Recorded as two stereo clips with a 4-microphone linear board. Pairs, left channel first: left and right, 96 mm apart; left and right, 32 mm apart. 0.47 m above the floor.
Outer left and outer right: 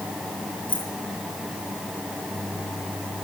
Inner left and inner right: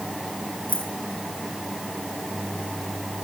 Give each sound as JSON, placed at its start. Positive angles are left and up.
{"t": 0.7, "sound": "keys jangling", "side_deg": 55, "distance_m": 5.0}